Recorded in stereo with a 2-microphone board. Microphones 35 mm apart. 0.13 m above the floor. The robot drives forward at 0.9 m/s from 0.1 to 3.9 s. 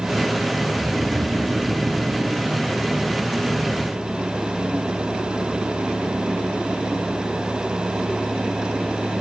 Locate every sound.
0.8 s snoring: 30° right (ahead or behind)